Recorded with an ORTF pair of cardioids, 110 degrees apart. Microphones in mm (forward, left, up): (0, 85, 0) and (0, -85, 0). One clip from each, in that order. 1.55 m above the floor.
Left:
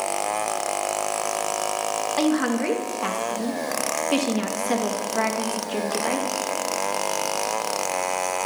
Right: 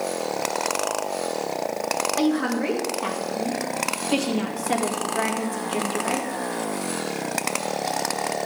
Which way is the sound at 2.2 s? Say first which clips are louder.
Left 1 dB; 15° left.